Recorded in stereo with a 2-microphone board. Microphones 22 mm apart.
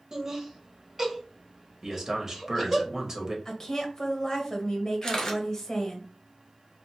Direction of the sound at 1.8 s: 25° right (ahead or behind).